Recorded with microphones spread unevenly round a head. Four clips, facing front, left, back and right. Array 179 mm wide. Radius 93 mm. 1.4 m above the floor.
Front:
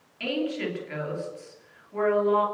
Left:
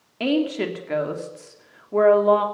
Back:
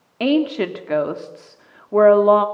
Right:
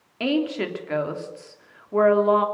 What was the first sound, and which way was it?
A woman speaking, 170° left.